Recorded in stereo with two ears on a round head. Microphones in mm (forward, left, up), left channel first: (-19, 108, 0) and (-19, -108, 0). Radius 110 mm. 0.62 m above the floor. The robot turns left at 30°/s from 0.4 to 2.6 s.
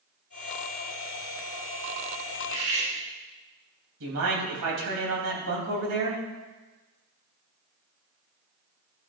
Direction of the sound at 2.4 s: 60° right (ahead or behind).